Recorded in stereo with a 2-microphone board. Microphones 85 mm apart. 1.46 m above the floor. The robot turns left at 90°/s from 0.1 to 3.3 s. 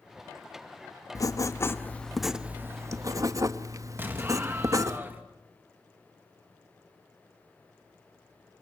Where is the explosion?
25° right (ahead or behind), 2 m.